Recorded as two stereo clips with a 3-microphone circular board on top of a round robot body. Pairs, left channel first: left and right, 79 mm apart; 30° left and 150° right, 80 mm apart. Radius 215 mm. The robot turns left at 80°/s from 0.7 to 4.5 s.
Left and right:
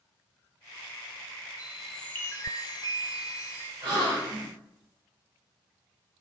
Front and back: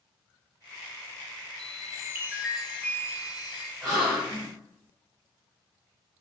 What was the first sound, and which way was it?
A chime, 160° right.